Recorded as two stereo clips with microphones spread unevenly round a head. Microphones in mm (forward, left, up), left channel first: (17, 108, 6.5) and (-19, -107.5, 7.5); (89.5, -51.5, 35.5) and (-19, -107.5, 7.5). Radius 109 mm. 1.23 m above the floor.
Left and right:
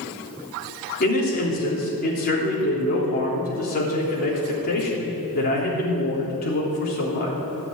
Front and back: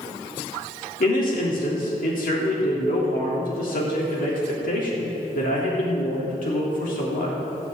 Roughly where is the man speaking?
Ahead left.